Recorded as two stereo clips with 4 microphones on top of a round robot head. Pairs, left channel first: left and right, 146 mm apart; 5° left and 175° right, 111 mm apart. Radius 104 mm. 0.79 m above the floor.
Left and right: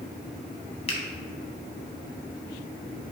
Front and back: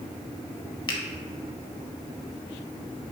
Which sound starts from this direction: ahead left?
A finger snap, at 0.9 s.